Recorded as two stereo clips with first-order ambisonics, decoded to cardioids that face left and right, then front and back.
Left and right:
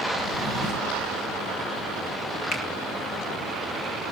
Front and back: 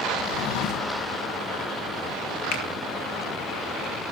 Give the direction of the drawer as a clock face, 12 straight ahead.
11 o'clock.